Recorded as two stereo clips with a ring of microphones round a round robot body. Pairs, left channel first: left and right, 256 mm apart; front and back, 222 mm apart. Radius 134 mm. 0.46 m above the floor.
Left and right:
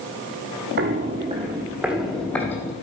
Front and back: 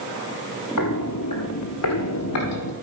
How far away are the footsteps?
About 1.1 m.